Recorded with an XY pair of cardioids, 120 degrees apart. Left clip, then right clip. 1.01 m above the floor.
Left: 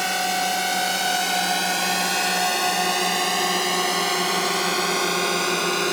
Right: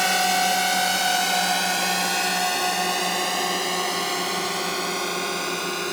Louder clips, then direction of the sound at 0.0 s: Right 2 dB; 15° right.